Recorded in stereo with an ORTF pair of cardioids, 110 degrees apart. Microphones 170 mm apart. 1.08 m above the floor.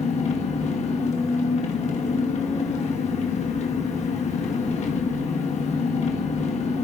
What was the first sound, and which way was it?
An engine running, 45° left.